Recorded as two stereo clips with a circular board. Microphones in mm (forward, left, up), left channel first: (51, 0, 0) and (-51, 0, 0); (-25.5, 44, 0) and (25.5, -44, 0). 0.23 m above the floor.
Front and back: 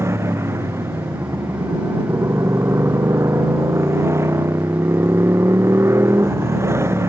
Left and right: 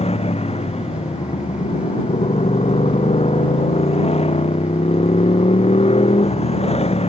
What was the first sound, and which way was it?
A motorcycle, 115° left.